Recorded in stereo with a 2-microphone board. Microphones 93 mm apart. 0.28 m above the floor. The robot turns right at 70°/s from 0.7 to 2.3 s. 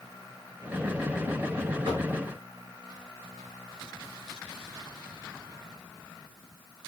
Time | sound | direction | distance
1.9 | knocking | 75° right (ahead or behind) | 2.5 m